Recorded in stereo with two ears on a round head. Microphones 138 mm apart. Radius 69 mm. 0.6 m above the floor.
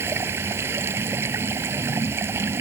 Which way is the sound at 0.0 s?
15° right (ahead or behind).